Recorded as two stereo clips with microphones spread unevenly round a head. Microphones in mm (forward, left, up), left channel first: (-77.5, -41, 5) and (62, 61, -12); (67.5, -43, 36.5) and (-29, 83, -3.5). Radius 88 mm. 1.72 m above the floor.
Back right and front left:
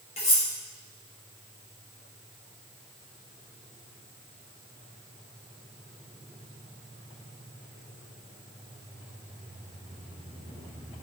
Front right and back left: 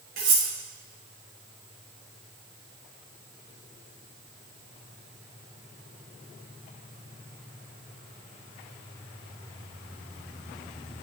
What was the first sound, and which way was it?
Cutlery clinking, 165° left.